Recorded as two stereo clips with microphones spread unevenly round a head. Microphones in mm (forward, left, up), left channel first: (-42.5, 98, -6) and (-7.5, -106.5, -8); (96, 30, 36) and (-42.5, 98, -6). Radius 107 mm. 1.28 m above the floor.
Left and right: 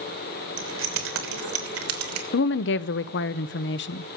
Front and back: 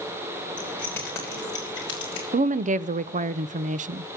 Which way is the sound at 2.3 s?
130° left.